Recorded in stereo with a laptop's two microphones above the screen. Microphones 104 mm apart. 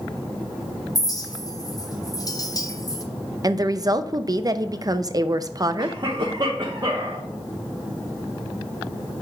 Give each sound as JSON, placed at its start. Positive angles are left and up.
{"t": 0.9, "sound": "a clink", "side_deg": 35, "distance_m": 0.6}
{"t": 3.4, "sound": "a woman speaking", "side_deg": -35, "distance_m": 0.6}
{"t": 5.8, "sound": "a cough", "side_deg": -45, "distance_m": 1.0}